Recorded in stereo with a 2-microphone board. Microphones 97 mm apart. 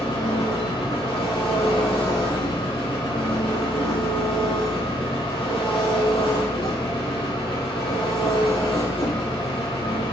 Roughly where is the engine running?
Left.